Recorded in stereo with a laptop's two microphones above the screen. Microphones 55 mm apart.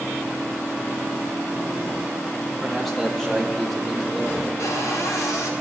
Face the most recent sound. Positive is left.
turn(degrees=80)